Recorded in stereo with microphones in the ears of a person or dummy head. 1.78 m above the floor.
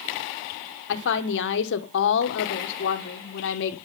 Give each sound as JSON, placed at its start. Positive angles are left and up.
{"t": 0.9, "sound": "a woman speaking", "side_deg": 70, "distance_m": 2.0}